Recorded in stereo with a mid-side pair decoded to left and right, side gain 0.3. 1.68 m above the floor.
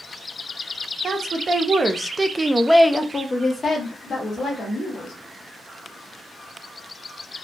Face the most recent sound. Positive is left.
turn(degrees=70)